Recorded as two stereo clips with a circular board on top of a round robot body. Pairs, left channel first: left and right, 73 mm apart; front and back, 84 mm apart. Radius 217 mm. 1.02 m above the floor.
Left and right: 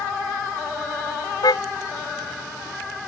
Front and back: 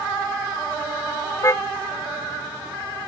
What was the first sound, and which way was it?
A car horn, 60° left.